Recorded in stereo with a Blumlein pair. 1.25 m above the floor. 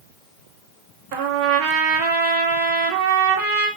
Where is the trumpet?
40° right, 0.8 m.